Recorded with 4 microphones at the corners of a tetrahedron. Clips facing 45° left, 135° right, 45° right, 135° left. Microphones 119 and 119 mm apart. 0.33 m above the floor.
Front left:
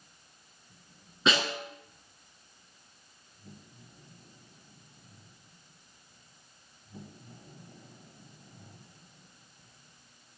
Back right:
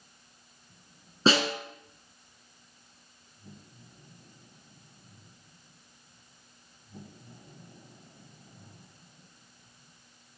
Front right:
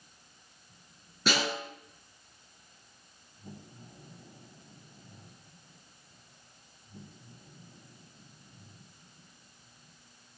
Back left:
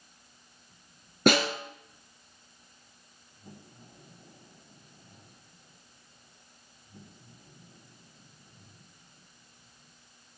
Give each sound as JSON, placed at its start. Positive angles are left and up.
{"t": 1.3, "sound": "a snare drum", "azimuth_deg": 170, "distance_m": 4.0}